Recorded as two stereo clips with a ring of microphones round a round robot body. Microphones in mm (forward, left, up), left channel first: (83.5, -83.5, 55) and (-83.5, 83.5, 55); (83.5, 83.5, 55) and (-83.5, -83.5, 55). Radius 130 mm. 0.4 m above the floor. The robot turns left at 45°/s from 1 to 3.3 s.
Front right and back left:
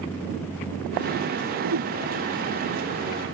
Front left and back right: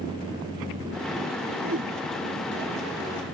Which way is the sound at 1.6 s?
175° left.